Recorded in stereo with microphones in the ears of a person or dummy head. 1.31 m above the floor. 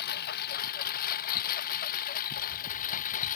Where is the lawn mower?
50° left (ahead or behind); by 3.4 s 45° left (ahead or behind).